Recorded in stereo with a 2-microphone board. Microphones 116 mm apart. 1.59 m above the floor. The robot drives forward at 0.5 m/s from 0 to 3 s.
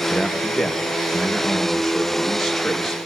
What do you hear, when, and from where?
0.1 s a man speaking: centre (ahead or behind), 0.9 m